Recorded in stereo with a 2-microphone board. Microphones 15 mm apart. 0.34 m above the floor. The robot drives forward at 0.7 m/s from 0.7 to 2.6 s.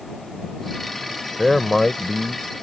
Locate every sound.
1.4 s a man speaking: 15° left (ahead or behind); by 2.4 s 10° left (ahead or behind)